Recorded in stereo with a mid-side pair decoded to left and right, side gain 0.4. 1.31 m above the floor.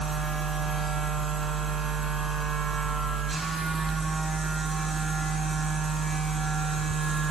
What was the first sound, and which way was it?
A machine running, 40° right.